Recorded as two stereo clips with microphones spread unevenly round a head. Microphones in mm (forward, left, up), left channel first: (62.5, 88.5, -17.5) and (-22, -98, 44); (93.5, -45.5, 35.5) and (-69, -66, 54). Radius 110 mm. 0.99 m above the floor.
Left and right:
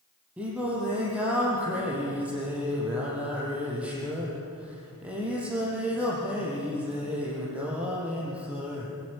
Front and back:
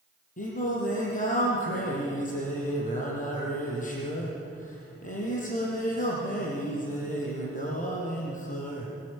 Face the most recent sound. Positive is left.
turn(degrees=-35)